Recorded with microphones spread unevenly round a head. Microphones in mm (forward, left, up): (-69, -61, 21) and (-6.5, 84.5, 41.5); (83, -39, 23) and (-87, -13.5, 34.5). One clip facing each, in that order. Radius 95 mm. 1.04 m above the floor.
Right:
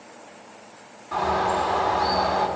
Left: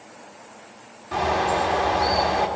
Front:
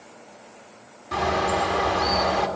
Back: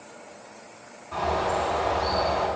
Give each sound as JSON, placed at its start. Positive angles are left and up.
{"t": 1.1, "sound": "a bird", "azimuth_deg": 0, "distance_m": 1.6}